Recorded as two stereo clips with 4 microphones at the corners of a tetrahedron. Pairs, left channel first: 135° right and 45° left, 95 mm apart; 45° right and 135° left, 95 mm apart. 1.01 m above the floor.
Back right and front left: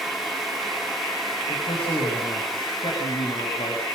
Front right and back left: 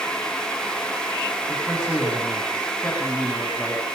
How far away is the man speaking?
About 8.5 m.